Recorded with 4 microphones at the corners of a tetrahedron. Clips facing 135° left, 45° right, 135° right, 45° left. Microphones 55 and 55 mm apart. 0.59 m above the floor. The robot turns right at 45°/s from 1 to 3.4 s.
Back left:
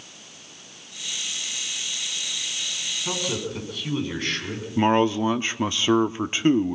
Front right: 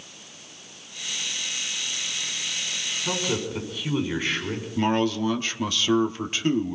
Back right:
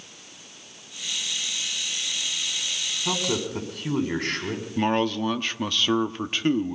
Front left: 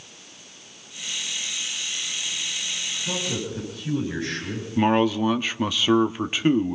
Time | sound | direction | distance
3.0 | a man speaking | 135° right | 6 m
4.8 | a man speaking | 115° left | 0.7 m